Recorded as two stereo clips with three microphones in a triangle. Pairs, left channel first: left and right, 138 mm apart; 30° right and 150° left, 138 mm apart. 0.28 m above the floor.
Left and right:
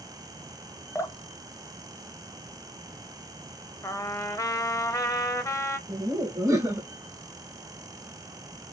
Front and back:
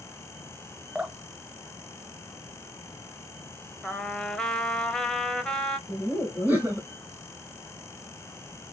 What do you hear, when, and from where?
0.9 s dripping: 85° left, 0.6 m
3.8 s a trumpet: 45° left, 0.6 m
5.9 s laughter: 140° right, 1.6 m